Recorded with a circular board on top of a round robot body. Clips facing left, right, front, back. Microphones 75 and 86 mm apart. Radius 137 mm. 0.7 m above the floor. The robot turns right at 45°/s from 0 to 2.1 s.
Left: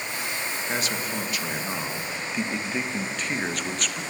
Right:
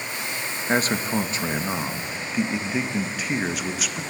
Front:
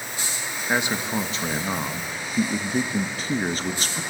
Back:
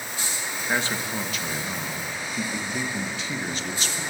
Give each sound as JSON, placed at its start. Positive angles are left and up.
{"t": 0.7, "sound": "a man speaking", "azimuth_deg": -70, "distance_m": 1.4}